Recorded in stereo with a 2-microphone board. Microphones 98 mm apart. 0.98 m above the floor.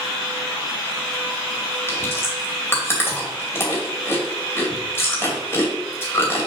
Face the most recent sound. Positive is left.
turn(degrees=25)  # may be behind; listen again after turning